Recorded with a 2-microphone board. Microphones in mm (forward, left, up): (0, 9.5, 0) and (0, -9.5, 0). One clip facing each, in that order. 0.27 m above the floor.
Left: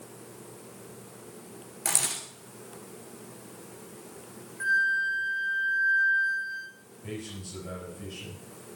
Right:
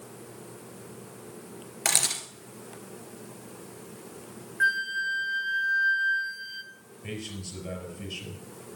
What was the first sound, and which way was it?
A camera shutter, 50° right (ahead or behind).